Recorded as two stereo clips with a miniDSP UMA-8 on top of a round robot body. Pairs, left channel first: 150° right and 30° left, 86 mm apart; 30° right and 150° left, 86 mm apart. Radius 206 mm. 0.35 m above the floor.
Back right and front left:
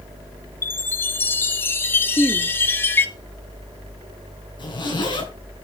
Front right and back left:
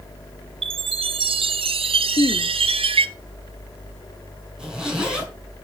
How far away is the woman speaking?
About 1.1 m.